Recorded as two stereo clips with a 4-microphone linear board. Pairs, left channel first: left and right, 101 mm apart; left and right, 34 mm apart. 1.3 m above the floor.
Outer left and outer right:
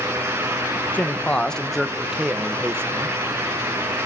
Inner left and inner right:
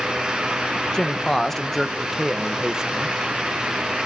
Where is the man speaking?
20° left (ahead or behind), 1.4 m; by 3.2 s 30° right (ahead or behind), 1.2 m.